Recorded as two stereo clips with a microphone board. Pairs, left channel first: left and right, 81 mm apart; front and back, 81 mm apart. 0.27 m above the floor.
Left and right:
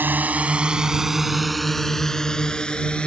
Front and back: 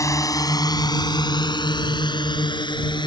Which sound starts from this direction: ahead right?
A drone, at 0.0 s.